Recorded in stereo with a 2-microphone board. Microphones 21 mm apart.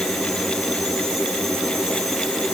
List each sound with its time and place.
Only background noise.